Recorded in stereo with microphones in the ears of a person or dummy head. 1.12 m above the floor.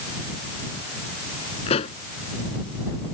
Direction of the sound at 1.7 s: 30° left (ahead or behind).